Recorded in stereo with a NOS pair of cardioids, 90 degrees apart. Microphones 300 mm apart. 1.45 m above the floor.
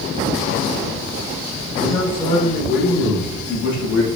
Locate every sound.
1.8 s a man speaking: 5° right, 1.5 m; by 4.1 s 55° left, 2 m